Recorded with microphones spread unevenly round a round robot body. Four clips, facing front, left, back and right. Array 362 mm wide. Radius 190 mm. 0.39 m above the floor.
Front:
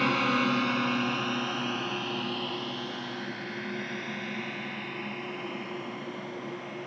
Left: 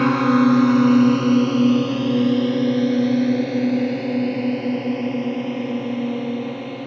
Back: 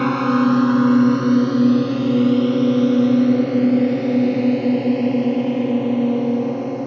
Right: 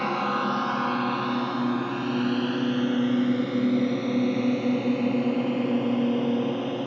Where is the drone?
120° left; by 6.9 s 175° right.